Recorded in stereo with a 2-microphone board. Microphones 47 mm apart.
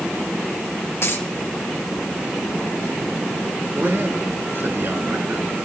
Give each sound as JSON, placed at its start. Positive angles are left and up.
{"t": 1.0, "sound": "a dropped coin", "side_deg": 60, "distance_m": 2.5}
{"t": 3.8, "sound": "a man speaking", "side_deg": -50, "distance_m": 3.0}